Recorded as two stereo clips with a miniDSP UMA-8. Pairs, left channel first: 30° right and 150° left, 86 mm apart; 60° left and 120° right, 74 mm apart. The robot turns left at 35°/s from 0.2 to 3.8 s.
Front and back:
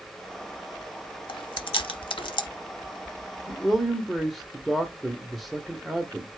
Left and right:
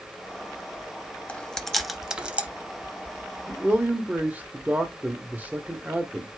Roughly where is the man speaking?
Right.